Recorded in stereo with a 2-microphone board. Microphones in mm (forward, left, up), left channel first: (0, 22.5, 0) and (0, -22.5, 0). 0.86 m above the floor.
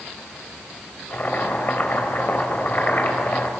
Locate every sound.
1.1 s boiling: 40° left (ahead or behind), 3 m